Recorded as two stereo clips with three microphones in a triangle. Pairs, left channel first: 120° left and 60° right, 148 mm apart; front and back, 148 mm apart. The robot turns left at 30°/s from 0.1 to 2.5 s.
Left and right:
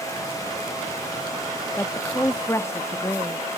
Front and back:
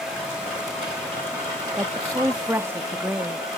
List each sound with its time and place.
1.8 s a woman speaking: 165° left, 0.6 m; by 3.5 s 145° left, 0.6 m